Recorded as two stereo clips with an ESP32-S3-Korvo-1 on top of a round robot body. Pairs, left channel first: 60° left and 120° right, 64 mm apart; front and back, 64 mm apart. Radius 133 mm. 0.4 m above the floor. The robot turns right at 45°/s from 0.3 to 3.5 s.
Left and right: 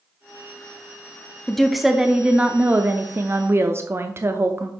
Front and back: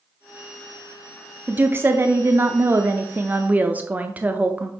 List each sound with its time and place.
1.5 s a woman speaking: 140° left, 0.9 m; by 4.7 s 130° right, 0.9 m